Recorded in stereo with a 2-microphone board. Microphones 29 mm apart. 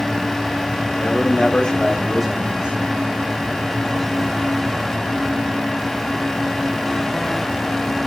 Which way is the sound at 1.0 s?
60° left (ahead or behind).